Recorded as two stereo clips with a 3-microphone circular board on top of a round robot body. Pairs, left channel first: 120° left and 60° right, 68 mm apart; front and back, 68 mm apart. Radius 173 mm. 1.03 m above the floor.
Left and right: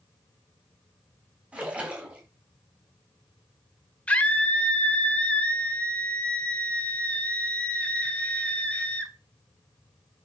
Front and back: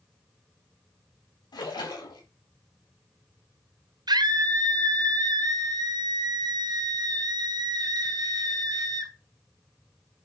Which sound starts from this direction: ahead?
A splash, at 1.5 s.